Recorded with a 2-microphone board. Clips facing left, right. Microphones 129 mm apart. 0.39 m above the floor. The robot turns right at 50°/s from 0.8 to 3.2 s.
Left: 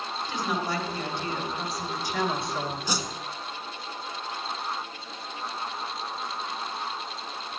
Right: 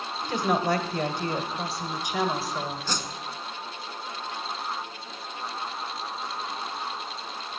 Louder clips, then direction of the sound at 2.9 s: Left 2 dB; 15° left (ahead or behind).